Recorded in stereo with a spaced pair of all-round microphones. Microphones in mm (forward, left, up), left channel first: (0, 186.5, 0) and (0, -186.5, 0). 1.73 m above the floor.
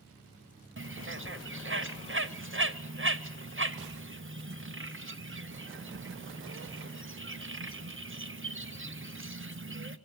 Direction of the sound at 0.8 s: 35° right (ahead or behind).